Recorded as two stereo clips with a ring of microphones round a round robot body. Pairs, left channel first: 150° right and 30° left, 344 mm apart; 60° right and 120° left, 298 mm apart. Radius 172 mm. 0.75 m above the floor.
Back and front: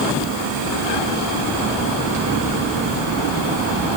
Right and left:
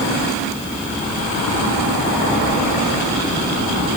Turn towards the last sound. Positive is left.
No sound to turn to.